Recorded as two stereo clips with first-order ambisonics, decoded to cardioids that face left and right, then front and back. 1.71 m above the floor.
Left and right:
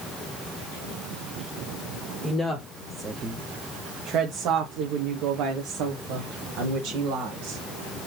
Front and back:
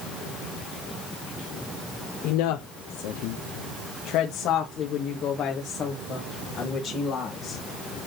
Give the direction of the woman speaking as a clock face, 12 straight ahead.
12 o'clock.